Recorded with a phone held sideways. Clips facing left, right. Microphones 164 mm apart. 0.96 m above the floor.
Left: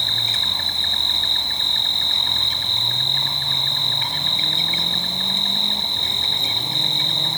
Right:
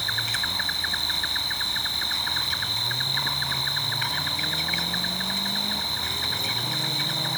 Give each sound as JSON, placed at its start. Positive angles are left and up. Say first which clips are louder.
{"t": 0.0, "sound": "an insect", "louder": "left 2 dB", "side_deg": 25, "distance_m": 1.1}